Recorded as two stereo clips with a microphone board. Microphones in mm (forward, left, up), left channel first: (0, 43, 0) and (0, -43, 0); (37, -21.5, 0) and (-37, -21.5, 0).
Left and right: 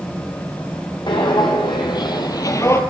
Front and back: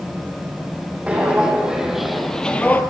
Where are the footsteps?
110° left, 2.5 m; by 2.8 s 50° left, 1.1 m.